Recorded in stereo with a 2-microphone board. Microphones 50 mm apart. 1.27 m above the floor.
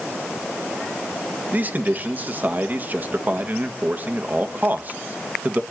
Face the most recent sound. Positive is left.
turn(degrees=-40)  # may be behind; listen again after turning